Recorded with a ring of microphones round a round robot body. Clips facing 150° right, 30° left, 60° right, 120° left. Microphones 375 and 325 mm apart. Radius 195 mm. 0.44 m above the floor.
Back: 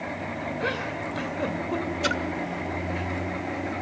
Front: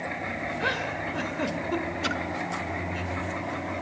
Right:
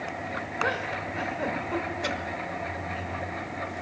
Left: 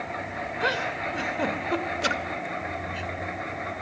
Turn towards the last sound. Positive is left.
turn(degrees=140)